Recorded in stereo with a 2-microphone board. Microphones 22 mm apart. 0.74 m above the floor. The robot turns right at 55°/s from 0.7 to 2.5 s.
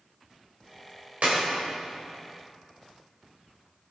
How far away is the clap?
About 3 m.